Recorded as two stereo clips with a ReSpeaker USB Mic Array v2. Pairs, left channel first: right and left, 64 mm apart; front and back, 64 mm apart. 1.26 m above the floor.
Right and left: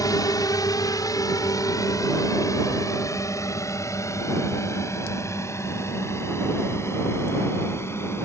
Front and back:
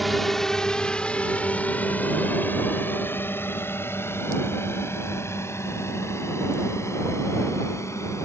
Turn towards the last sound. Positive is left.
turn(degrees=-45)